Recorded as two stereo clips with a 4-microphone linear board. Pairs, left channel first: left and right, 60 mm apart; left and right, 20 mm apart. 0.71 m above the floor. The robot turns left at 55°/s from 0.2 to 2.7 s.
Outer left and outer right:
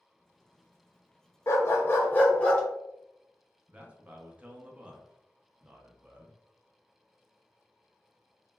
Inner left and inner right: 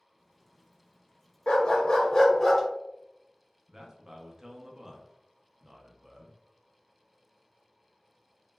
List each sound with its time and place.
1.5 s a dog barking: 80° left, 0.5 m; by 2.6 s 20° left, 0.5 m
3.7 s a man speaking: 20° right (ahead or behind), 0.5 m